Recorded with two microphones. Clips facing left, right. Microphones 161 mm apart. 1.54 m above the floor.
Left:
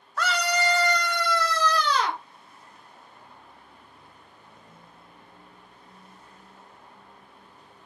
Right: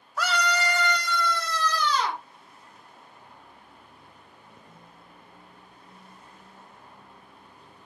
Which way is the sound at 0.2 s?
10° right (ahead or behind).